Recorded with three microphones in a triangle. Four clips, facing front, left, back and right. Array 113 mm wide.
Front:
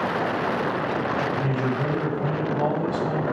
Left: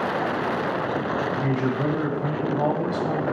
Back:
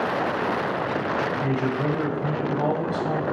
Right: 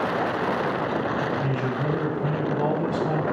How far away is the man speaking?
About 0.9 m.